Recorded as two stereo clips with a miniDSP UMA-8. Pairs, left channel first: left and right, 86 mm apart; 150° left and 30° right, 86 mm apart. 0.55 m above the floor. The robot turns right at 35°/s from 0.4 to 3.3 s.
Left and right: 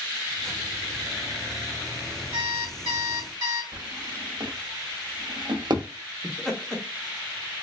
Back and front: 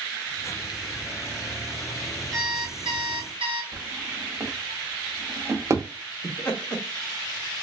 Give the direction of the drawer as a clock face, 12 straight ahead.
3 o'clock.